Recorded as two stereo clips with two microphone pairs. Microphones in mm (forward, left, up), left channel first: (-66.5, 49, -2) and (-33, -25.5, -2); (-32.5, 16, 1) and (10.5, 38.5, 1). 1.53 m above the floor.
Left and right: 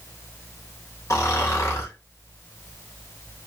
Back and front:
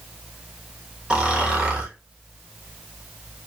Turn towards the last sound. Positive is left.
turn(degrees=90)